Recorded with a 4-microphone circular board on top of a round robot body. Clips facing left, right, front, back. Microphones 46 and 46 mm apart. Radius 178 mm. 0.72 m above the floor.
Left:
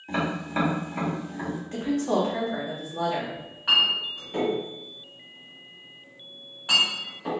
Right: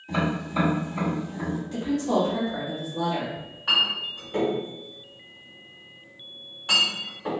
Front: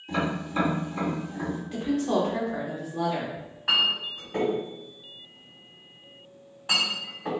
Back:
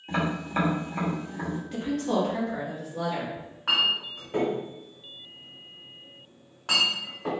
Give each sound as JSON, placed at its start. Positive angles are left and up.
{"t": 0.1, "sound": "tapping", "azimuth_deg": 130, "distance_m": 1.9}
{"t": 1.7, "sound": "a woman speaking", "azimuth_deg": 85, "distance_m": 1.1}
{"t": 3.4, "sound": "a clink", "azimuth_deg": 165, "distance_m": 1.6}